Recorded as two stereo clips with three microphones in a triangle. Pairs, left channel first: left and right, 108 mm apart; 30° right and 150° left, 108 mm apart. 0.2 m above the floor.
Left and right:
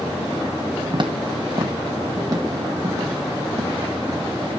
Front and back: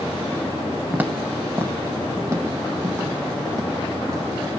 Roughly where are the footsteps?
Behind right.